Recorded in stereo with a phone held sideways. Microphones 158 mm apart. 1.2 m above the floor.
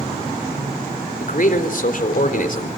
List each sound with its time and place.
1.2 s a man speaking: 60° left (ahead or behind), 4 m